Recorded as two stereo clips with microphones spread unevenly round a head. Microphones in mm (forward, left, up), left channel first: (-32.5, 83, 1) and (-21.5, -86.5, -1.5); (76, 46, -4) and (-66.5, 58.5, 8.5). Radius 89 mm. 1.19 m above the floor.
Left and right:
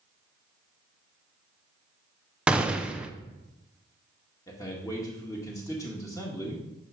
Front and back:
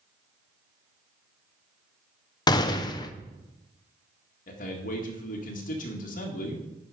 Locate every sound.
2.5 s a gunshot: 10° right, 0.6 m
4.5 s a man speaking: 20° left, 1.8 m